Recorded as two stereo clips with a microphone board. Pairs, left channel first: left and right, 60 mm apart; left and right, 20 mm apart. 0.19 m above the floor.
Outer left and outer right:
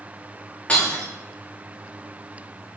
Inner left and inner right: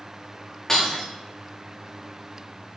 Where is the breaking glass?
20° left (ahead or behind), 5.5 m.